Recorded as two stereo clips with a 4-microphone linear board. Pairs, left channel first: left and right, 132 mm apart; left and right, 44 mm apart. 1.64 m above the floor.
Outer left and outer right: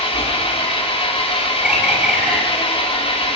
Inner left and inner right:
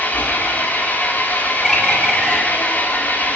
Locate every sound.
0.0 s an engine running: 45° left (ahead or behind), 2.5 m
1.6 s a bird: 5° right (ahead or behind), 4 m